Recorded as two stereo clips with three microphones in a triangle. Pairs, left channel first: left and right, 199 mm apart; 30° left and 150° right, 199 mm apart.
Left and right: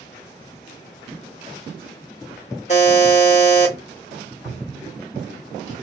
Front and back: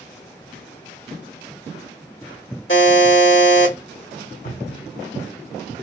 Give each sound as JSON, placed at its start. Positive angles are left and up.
{"t": 2.7, "sound": "a buzzer", "azimuth_deg": 40, "distance_m": 1.2}
{"t": 4.4, "sound": "a cupboard door", "azimuth_deg": 0, "distance_m": 2.0}